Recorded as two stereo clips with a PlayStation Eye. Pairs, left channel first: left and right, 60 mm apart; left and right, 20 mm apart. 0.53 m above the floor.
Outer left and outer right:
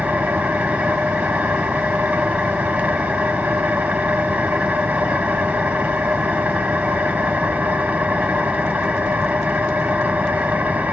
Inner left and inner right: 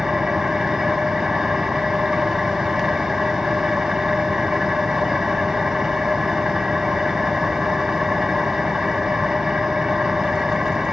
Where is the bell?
I don't hear a bell.